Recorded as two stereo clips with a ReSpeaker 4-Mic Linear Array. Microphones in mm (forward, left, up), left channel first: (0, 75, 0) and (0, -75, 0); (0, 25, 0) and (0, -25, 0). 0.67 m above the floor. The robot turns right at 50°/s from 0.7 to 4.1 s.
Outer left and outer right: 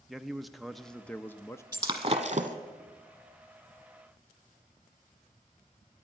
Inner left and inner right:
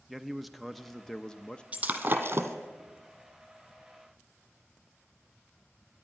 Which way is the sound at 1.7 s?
155° right.